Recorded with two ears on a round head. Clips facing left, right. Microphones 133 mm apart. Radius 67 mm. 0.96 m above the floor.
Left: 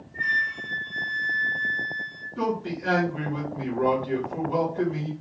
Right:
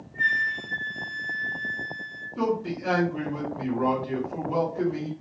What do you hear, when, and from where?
0.2 s a flute: 50° right (ahead or behind), 1.0 m
2.4 s a man speaking: 5° right (ahead or behind), 1.6 m